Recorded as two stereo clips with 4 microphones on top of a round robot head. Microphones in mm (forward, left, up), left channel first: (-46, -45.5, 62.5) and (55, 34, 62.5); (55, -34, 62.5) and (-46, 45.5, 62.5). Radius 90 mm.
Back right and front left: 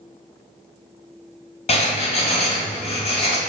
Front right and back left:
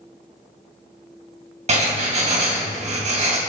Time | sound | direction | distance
1.7 | writing | 175° left | 2.5 m